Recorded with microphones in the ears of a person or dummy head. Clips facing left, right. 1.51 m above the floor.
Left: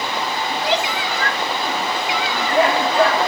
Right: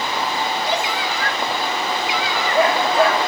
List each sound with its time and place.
0.5 s a shout: 55° left (ahead or behind)